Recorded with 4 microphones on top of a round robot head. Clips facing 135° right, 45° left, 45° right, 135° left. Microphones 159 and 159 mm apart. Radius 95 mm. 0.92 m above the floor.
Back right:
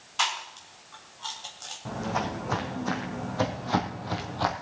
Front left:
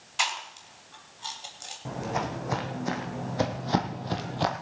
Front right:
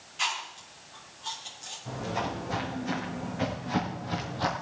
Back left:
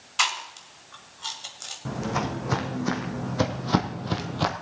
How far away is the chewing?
About 2 m.